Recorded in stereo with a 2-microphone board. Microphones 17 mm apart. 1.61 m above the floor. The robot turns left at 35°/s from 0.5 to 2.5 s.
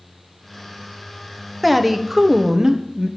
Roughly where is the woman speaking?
Ahead.